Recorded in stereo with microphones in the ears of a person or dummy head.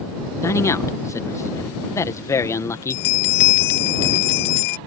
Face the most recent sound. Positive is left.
turn(degrees=50)  # may be behind; listen again after turning